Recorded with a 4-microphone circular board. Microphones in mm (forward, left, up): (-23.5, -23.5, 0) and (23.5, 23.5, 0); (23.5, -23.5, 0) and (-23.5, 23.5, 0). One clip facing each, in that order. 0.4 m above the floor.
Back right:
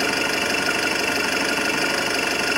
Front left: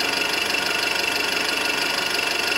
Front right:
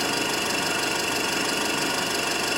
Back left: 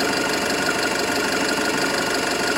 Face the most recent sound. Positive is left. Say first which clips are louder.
# back right 2 dB, back left 5 dB
turn(degrees=160)